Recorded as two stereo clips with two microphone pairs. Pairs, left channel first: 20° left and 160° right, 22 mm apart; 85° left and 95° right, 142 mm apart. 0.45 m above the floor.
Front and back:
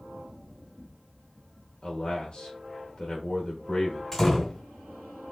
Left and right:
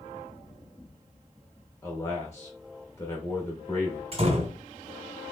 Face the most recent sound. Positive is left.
turn(degrees=-55)